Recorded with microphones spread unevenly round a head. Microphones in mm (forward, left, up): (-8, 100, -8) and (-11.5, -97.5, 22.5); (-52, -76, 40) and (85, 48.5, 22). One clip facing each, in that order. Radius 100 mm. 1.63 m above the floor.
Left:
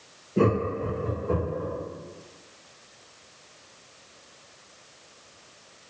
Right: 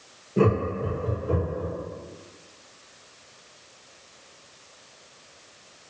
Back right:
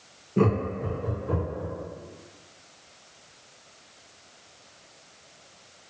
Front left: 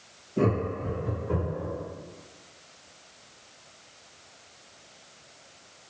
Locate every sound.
0.4 s laughter: 175° right, 1.7 m; by 1.7 s 160° right, 2 m